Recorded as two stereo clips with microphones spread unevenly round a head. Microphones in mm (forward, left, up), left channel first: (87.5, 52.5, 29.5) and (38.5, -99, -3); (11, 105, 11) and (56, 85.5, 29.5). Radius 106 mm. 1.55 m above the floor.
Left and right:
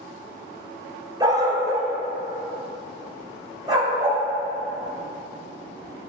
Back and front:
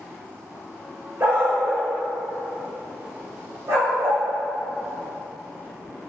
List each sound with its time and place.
1.2 s a dog barking: 35° right, 1.8 m; by 4.2 s 40° right, 4 m